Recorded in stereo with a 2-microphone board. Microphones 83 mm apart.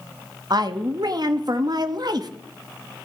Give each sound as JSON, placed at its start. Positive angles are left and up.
{"t": 0.5, "sound": "a woman speaking", "side_deg": -55, "distance_m": 0.9}